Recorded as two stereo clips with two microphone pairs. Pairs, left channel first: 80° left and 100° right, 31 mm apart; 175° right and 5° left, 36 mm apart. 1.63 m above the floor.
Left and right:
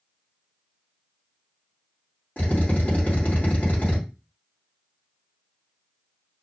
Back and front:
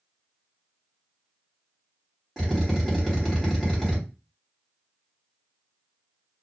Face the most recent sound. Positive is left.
turn(degrees=95)